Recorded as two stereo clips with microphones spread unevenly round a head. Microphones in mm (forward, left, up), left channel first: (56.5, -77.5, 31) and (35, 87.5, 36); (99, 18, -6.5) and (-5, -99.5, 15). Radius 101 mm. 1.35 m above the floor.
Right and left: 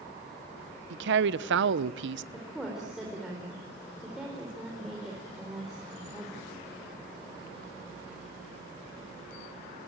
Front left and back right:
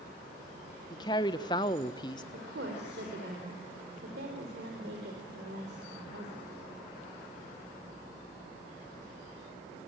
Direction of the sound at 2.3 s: 175° right.